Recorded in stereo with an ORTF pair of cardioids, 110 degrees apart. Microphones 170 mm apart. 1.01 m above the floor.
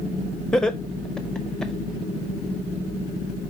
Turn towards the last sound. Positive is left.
turn(degrees=5)